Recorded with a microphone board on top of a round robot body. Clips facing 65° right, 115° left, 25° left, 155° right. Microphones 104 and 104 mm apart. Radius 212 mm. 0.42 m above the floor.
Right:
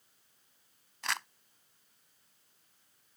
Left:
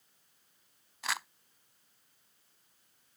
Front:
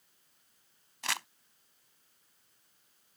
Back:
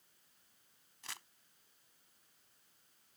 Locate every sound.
1.0 s crumpling: 25° left